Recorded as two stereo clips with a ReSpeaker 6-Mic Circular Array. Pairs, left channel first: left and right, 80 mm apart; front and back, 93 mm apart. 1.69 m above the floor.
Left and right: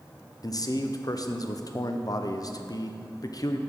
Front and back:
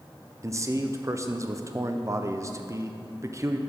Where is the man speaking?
125° left, 0.6 m.